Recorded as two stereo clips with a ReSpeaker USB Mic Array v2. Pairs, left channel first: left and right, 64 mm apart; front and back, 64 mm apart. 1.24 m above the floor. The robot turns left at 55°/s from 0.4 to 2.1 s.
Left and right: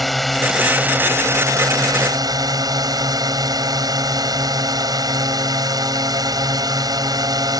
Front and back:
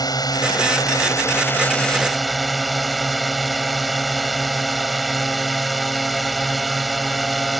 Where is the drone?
Straight ahead; by 7.6 s 90° right.